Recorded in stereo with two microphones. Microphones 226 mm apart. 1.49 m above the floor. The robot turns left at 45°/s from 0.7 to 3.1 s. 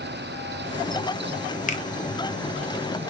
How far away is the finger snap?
About 0.7 m.